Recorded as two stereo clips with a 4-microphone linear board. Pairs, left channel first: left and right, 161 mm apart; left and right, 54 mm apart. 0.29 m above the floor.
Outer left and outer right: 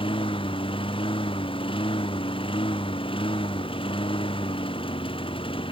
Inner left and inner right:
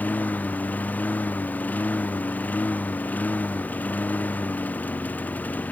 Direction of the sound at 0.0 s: 35° left (ahead or behind).